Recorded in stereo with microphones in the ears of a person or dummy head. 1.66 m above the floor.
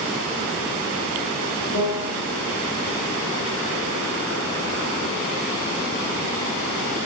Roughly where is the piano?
Left.